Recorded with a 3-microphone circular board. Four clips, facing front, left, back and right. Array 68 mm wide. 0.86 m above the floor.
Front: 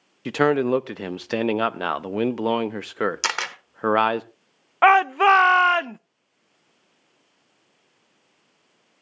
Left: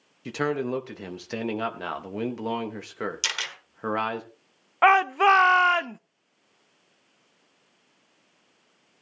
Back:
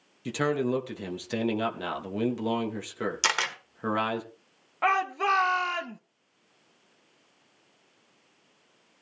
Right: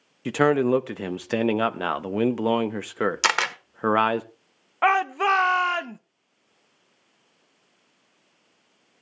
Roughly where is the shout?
Ahead.